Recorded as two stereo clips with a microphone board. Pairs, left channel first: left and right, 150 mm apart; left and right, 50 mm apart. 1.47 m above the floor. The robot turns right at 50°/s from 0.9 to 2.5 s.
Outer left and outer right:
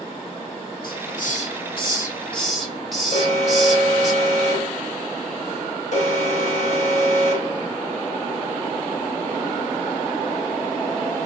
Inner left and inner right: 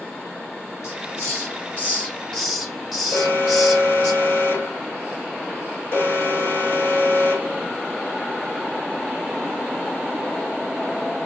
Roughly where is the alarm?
Left.